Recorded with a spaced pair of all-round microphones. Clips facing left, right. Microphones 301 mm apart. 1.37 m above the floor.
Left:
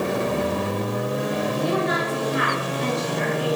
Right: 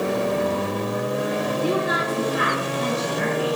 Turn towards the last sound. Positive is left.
turn(degrees=-50)  # may be behind; listen again after turning